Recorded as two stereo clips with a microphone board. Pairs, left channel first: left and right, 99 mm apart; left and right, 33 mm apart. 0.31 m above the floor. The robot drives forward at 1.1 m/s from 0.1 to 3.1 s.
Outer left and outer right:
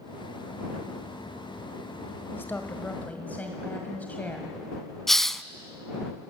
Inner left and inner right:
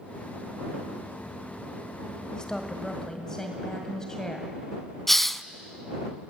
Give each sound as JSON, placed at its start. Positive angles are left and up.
{"t": 2.3, "sound": "a woman speaking", "side_deg": 20, "distance_m": 1.4}
{"t": 5.1, "sound": "a hiss", "side_deg": 5, "distance_m": 0.5}